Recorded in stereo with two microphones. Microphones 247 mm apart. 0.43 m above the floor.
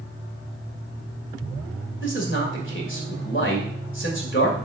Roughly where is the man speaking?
Left.